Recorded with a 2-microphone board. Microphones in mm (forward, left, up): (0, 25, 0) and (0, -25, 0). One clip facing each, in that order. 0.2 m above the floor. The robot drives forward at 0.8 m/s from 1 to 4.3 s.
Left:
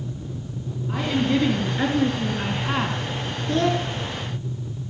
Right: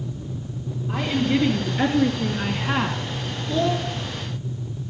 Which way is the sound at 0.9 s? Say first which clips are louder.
Even; centre (ahead or behind).